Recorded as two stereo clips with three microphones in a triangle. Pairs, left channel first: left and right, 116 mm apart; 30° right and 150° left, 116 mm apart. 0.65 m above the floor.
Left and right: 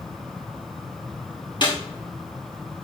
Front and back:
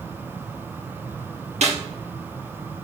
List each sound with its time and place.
1.6 s a snare drum: 135° left, 3 m